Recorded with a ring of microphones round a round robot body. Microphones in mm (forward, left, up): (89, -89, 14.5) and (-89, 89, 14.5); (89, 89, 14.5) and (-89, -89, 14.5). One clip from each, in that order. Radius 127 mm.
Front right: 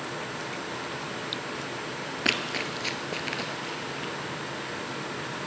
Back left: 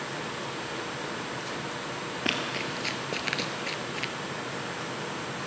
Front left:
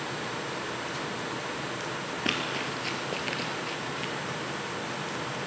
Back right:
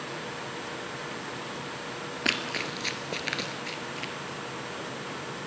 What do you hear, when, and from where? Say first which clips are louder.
2.2 s running footsteps: front right 3 dB, back right 2 dB; 95° right, 1.0 m; by 4.1 s 155° left, 1.0 m